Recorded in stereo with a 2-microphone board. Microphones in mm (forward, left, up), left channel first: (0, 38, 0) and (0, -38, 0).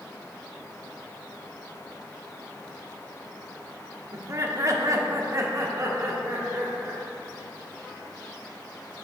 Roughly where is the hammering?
No hammering in this recording.